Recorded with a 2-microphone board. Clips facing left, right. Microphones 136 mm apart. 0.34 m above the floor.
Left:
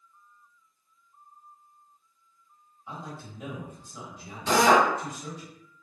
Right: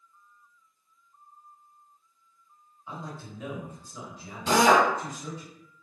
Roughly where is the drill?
Centre.